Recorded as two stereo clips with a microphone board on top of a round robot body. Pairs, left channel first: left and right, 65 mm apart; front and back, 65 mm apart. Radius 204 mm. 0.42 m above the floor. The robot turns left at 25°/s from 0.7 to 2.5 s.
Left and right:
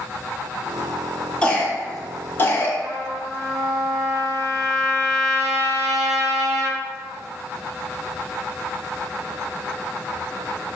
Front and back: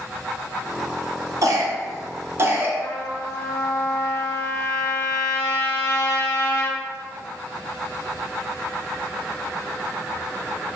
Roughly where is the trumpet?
Ahead right.